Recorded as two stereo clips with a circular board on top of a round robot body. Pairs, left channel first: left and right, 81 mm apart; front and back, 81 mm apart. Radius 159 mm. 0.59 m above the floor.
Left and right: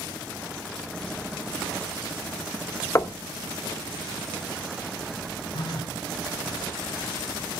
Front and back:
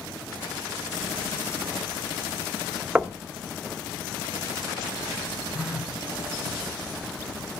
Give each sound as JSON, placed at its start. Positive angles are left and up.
{"t": 3.0, "sound": "knocking", "azimuth_deg": 110, "distance_m": 0.7}
{"t": 5.5, "sound": "a phone buzzing", "azimuth_deg": 100, "distance_m": 2.5}